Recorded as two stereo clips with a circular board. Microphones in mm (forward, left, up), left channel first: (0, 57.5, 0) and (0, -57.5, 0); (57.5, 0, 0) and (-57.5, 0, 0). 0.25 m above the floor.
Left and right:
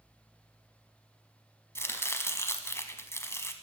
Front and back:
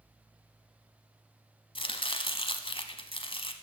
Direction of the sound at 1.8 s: 25° left.